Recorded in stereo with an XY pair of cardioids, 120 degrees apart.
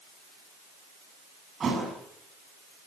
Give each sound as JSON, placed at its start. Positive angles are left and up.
{"t": 1.6, "sound": "a thud", "azimuth_deg": -35, "distance_m": 6.5}